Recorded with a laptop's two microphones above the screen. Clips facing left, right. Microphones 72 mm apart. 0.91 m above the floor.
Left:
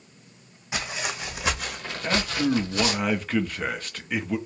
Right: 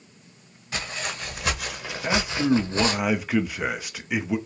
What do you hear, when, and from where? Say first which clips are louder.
0.7 s footsteps: left 1 dB; 15° left (ahead or behind), 1.9 m; by 3.0 s 40° right (ahead or behind), 1.4 m
2.0 s a man speaking: right 2 dB; 10° right (ahead or behind), 0.6 m